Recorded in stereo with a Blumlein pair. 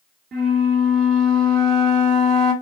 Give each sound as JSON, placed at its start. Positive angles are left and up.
{"t": 0.3, "sound": "a flute", "azimuth_deg": -25, "distance_m": 0.8}